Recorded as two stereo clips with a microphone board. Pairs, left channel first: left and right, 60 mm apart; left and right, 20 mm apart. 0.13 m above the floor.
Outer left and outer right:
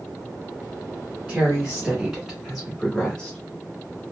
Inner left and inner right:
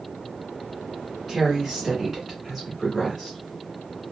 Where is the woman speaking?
20° right (ahead or behind), 1.5 m; by 3.4 s 15° left (ahead or behind), 1.5 m.